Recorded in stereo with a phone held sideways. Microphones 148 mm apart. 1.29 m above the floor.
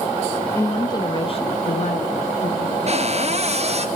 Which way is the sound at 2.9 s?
45° right (ahead or behind).